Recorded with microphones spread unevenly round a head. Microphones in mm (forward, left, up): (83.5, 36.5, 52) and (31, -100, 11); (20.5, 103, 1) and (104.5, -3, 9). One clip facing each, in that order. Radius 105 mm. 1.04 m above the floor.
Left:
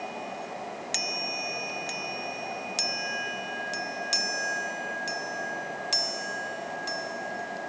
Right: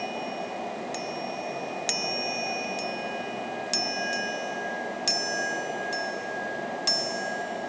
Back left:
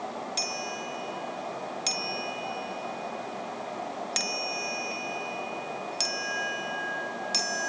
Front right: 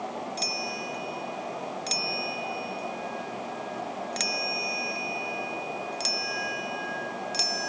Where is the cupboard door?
No cupboard door in this recording.